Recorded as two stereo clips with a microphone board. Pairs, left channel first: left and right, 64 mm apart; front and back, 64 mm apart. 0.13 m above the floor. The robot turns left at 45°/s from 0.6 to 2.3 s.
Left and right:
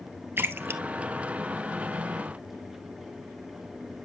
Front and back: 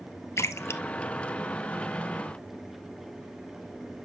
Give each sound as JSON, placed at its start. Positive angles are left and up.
{"t": 0.4, "sound": "a splash", "azimuth_deg": -40, "distance_m": 0.9}